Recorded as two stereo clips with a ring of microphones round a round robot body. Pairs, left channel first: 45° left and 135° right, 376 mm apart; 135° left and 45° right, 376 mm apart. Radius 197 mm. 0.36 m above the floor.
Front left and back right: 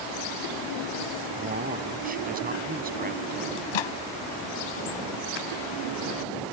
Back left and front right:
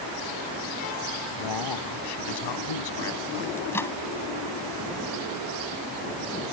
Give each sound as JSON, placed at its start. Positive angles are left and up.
{"t": 1.4, "sound": "a man speaking", "azimuth_deg": 155}
{"t": 3.6, "sound": "a microwave", "azimuth_deg": 50}